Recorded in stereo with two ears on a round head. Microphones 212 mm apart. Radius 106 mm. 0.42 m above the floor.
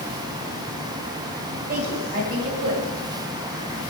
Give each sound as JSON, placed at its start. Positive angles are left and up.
{"t": 1.7, "sound": "a woman speaking", "side_deg": -40, "distance_m": 2.5}